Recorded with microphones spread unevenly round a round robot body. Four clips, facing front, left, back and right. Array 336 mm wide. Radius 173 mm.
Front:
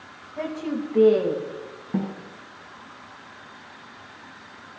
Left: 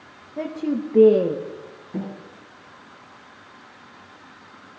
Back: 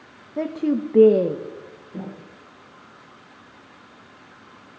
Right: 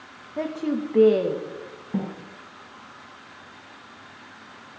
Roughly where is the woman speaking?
Behind.